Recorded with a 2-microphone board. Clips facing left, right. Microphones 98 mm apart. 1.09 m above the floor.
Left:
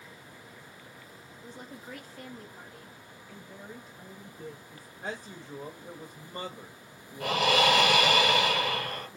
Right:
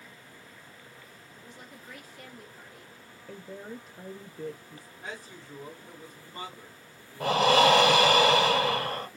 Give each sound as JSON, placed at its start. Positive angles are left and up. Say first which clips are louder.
{"t": 1.4, "sound": "a woman speaking", "louder": "left 4 dB", "side_deg": 45, "distance_m": 0.9}
{"t": 3.3, "sound": "a woman speaking", "louder": "right 6 dB", "side_deg": -65, "distance_m": 0.6}
{"t": 5.0, "sound": "a man speaking", "louder": "left 4 dB", "side_deg": 50, "distance_m": 1.3}
{"t": 7.2, "sound": "breathing", "louder": "right 4 dB", "side_deg": -35, "distance_m": 0.6}